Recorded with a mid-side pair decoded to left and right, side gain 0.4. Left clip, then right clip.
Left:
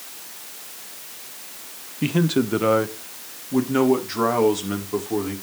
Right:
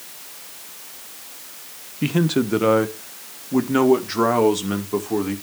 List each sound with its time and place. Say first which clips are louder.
2.0 s a man speaking: right 1 dB; 10° right, 1.1 m; by 5.3 s 35° right, 3 m